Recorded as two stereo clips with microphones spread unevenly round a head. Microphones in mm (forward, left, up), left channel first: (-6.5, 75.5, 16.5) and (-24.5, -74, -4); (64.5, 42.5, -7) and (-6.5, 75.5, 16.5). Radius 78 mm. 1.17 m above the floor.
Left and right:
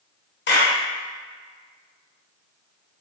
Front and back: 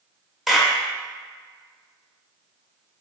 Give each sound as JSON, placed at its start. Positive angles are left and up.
{"t": 0.5, "sound": "a clap", "azimuth_deg": 70, "distance_m": 1.0}